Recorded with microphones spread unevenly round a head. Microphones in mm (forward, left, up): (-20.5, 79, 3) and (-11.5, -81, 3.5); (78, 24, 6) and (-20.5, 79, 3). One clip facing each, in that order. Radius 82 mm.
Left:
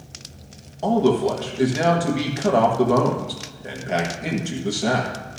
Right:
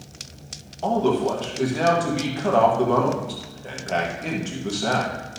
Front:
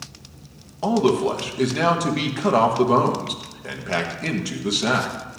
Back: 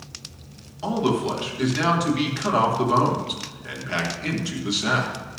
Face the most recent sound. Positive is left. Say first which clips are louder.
# left 2 dB, front 4 dB
turn(degrees=15)